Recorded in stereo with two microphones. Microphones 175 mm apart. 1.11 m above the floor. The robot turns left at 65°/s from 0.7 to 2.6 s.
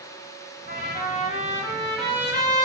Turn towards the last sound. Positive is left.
turn(degrees=-40)